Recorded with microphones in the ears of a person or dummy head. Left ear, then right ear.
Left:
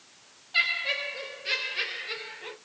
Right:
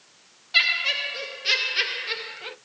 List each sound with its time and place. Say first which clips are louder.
0.5 s laughter: right 5 dB; 70° right (ahead or behind), 1.7 m; by 2.5 s 35° right (ahead or behind), 1.3 m